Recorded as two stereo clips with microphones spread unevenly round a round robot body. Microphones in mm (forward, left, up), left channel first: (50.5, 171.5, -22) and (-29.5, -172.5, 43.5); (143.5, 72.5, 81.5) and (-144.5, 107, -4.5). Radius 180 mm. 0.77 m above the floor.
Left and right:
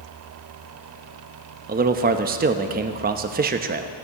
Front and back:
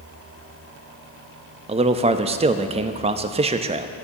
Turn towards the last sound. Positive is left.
turn(degrees=-170)